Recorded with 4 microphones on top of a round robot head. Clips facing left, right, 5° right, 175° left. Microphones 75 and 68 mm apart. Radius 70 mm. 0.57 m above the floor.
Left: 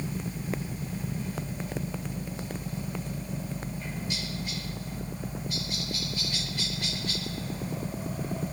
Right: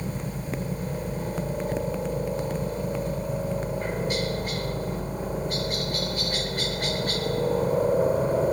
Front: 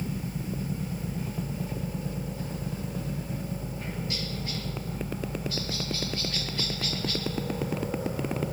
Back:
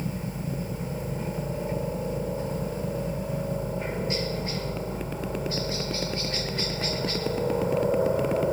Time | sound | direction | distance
0.0 | a helicopter | 125° right | ?